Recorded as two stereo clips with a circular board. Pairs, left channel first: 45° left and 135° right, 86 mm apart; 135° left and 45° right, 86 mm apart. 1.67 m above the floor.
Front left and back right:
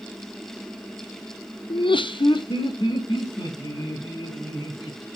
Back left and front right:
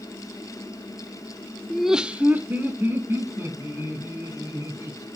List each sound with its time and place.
1.7 s laughter: 50° left, 0.6 m; by 5.1 s 15° left, 3.5 m